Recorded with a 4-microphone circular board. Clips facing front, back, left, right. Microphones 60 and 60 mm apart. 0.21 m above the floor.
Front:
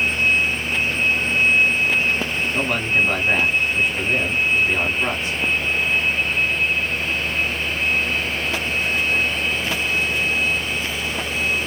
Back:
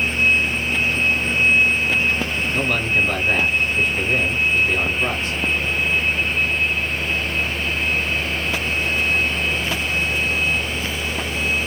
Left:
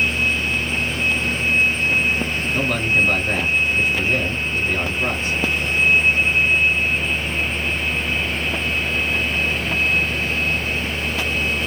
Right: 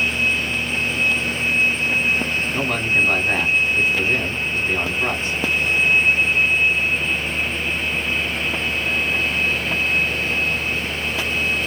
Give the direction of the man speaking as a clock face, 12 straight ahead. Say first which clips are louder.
Even, left 2 dB; 2 o'clock.